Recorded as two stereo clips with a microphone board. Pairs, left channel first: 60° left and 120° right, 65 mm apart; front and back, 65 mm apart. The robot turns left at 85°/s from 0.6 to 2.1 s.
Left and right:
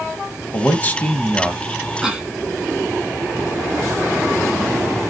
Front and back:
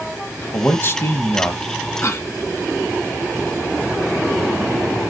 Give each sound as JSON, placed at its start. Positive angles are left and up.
{"t": 0.5, "sound": "a man speaking", "azimuth_deg": 35, "distance_m": 1.1}
{"t": 2.0, "sound": "a cough", "azimuth_deg": -35, "distance_m": 1.9}